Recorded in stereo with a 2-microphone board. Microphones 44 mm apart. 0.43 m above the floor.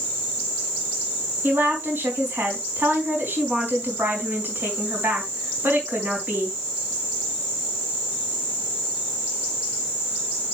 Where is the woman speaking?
50° right (ahead or behind), 4 m.